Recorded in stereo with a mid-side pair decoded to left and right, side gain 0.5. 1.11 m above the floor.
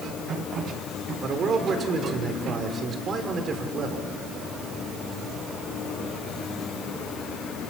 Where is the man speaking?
50° right, 4 m.